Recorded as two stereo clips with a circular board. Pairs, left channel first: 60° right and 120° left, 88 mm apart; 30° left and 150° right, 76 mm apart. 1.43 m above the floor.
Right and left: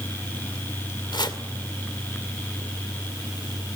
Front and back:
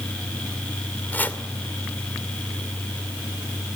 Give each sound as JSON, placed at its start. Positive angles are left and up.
{"t": 1.1, "sound": "chopping", "azimuth_deg": -35, "distance_m": 2.0}